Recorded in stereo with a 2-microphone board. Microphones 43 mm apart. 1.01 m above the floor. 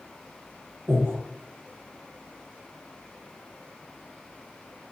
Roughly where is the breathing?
Right.